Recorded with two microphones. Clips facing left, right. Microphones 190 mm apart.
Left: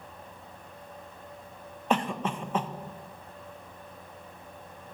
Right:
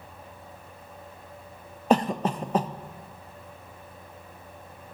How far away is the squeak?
No squeak in this recording.